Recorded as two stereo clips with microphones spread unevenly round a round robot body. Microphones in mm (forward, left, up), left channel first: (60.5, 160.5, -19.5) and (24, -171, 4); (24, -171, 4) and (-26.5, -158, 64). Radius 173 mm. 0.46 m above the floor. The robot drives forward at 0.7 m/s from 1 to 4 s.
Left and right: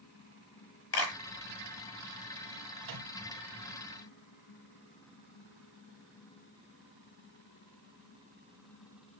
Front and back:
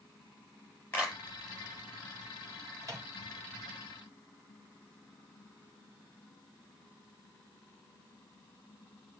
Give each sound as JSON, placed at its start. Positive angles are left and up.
{"t": 0.9, "sound": "a clap", "azimuth_deg": 35, "distance_m": 7.5}
{"t": 2.8, "sound": "a microwave", "azimuth_deg": -150, "distance_m": 2.5}